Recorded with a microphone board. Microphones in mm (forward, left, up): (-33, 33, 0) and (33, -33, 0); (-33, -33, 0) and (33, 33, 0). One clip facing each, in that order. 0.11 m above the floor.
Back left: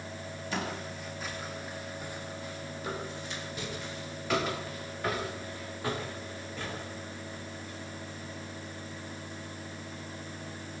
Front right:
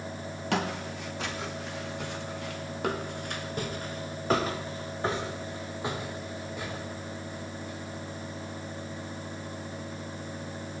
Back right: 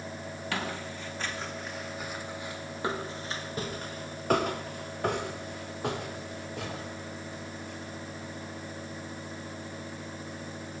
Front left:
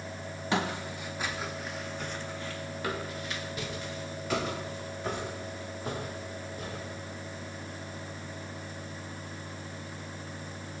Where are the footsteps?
25° right, 5 m; by 7.9 s 130° right, 9 m.